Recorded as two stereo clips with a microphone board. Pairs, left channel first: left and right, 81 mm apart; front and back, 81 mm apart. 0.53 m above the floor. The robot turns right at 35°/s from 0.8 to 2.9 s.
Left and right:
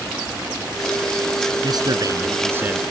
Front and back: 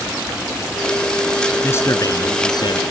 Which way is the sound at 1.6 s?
60° right.